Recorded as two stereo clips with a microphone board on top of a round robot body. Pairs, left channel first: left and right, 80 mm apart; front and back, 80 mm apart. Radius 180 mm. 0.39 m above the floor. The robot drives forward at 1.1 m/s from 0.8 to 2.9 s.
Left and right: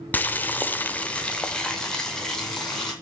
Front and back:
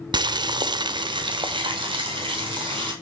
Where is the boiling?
160° left, 1.0 m; by 2.9 s 175° left, 3 m.